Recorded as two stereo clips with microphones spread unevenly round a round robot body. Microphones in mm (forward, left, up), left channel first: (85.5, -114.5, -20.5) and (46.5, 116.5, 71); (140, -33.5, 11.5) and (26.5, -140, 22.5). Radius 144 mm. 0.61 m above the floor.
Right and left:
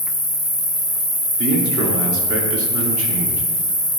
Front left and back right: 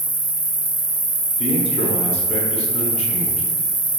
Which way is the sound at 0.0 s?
100° right.